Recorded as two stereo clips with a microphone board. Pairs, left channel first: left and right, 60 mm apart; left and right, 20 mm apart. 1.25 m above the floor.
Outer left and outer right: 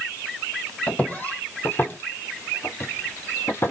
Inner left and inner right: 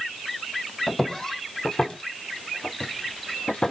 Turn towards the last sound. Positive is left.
turn(degrees=45)  # may be behind; listen again after turning